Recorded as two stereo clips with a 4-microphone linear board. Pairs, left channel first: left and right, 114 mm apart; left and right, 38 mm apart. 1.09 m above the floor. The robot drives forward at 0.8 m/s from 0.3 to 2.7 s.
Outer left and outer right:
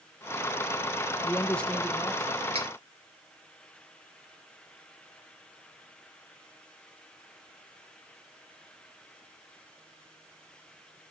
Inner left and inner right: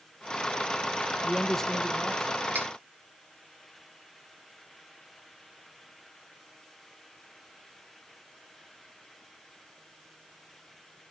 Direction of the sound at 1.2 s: 10° left (ahead or behind).